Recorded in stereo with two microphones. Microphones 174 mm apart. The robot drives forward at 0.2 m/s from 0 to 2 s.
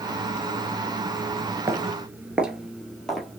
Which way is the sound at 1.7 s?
15° right (ahead or behind).